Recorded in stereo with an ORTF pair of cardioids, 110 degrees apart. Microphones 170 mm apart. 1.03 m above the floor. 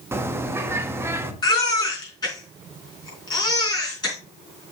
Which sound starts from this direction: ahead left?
A baby crying, at 1.4 s.